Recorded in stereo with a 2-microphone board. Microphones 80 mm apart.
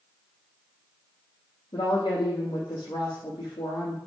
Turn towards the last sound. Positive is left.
turn(degrees=65)  # may be behind; listen again after turning